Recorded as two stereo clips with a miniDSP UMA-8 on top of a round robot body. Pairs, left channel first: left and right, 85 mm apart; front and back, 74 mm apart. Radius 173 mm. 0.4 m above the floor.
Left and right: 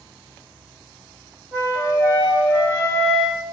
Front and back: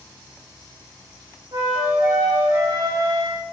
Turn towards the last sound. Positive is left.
turn(degrees=-155)